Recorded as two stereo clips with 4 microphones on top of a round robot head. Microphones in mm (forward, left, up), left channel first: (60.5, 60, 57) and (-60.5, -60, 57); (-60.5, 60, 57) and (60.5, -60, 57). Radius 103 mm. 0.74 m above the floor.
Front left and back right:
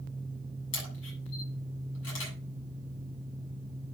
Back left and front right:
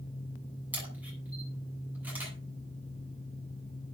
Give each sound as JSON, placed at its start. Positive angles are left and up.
{"t": 0.7, "sound": "a camera shutter", "azimuth_deg": 35, "distance_m": 7.5}